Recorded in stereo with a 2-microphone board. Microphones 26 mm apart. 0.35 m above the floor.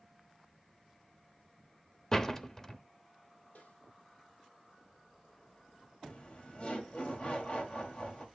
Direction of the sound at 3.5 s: 80° left.